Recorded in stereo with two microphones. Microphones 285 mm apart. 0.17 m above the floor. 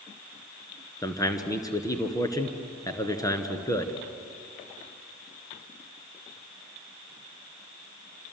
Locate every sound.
1.0 s a man speaking: 10° left (ahead or behind), 2.5 m